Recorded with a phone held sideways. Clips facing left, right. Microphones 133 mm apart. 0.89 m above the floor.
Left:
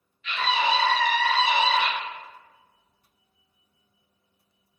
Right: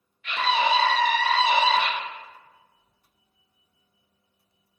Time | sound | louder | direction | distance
0.2 | a scream | right 2 dB | 55° right (ahead or behind) | 1.1 m